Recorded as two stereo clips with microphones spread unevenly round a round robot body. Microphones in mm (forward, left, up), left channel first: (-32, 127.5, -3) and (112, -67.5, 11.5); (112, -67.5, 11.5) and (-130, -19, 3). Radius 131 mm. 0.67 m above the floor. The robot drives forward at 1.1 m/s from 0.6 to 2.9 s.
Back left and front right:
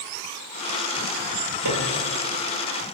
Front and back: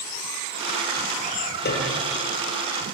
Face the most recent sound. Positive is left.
turn(degrees=-75)